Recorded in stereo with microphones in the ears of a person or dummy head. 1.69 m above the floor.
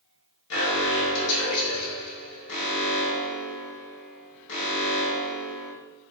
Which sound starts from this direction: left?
An alarm, at 0.5 s.